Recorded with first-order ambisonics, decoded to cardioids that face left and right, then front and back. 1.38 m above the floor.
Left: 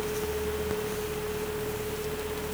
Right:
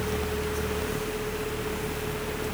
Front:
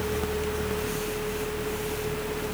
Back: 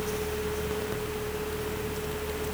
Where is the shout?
I don't hear a shout.